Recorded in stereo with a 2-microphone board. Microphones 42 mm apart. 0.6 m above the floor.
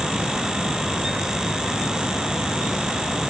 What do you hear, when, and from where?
Only background noise.